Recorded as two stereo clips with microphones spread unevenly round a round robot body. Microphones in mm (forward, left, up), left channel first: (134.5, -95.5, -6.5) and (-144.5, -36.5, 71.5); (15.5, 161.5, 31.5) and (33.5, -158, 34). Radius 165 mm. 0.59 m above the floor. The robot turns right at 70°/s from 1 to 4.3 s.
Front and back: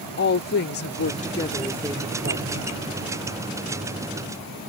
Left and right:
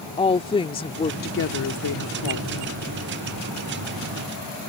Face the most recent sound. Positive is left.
turn(degrees=-105)